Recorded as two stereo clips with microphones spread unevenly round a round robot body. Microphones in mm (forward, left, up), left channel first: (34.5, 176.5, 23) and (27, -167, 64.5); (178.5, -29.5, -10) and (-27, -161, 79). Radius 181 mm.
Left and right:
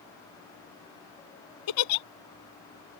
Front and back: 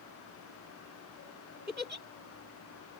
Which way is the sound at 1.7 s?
125° left.